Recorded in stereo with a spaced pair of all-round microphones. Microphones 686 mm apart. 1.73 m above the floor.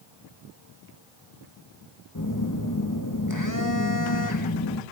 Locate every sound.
2.1 s a phone buzzing: 30° left (ahead or behind), 2.5 m